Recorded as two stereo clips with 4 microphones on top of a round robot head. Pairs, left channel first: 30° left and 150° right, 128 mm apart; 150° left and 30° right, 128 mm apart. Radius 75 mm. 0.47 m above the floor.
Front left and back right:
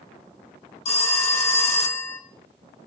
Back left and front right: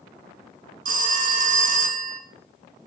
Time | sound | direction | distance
0.8 | a phone ringing | 10° right | 2.5 m